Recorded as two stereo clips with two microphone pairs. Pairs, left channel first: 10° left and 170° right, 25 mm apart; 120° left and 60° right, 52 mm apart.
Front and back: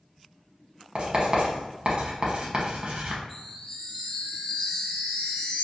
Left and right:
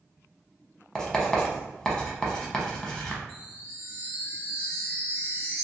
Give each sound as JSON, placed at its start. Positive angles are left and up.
{"t": 0.9, "sound": "writing", "azimuth_deg": -160, "distance_m": 0.8}
{"t": 3.3, "sound": "a chime", "azimuth_deg": 20, "distance_m": 1.1}